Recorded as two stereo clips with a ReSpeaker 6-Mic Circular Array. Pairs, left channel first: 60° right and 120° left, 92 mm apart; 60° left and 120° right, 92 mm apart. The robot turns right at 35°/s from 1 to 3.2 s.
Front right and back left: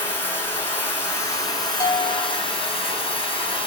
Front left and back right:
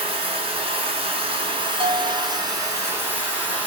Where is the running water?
120° right, 2 m; by 3.7 s 45° right, 2 m.